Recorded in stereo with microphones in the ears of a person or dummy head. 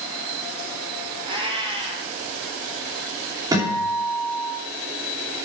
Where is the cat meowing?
25° right (ahead or behind), 1.8 m.